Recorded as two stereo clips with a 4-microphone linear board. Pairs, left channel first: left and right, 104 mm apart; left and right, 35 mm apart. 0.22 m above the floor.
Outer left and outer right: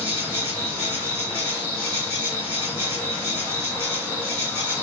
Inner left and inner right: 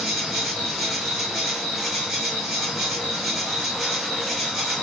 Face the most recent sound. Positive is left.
turn(degrees=-20)  # may be behind; listen again after turning